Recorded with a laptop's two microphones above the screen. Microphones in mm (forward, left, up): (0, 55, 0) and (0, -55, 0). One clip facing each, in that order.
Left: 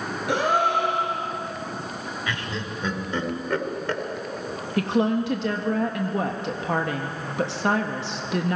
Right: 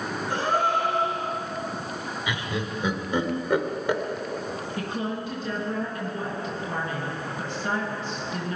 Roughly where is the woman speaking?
Left.